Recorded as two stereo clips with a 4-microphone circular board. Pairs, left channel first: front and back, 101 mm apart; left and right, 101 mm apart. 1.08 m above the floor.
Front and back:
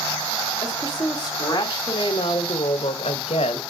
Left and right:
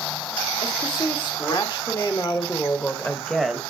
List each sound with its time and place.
0.6 s a woman speaking: 55° left, 2 m; by 3.6 s 5° right, 0.8 m